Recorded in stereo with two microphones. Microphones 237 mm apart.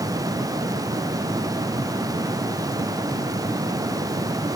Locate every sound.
Only background noise.